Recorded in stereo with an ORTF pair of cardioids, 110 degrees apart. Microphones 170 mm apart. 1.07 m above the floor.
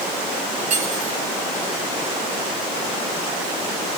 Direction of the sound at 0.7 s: 50° right.